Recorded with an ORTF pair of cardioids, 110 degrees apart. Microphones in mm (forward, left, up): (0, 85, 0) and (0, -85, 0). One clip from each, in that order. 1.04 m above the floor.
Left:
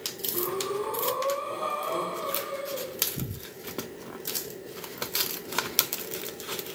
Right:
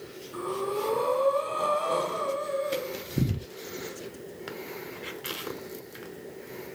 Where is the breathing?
50° right, 2 m.